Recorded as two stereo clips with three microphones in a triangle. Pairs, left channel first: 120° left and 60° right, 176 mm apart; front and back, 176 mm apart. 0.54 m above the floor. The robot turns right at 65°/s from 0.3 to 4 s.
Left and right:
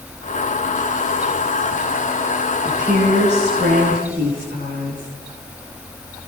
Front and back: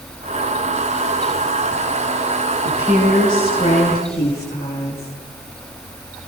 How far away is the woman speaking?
About 9.5 m.